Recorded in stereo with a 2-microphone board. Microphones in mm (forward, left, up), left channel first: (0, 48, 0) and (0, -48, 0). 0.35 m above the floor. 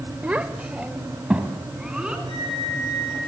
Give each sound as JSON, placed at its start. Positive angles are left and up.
{"t": 0.2, "sound": "a child speaking", "side_deg": -15, "distance_m": 0.7}
{"t": 2.3, "sound": "a flute", "side_deg": 80, "distance_m": 9.5}